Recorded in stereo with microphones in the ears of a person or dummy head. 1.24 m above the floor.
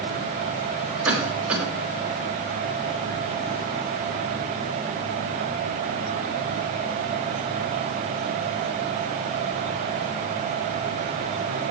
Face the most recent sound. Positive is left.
turn(degrees=-5)  # may be behind; listen again after turning